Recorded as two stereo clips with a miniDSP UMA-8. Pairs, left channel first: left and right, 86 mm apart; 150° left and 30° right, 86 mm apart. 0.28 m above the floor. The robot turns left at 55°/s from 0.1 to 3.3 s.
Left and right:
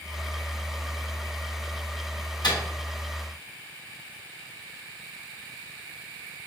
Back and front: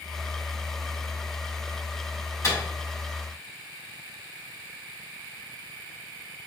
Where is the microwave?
105° left, 1.3 m; by 2.6 s 95° left, 1.3 m.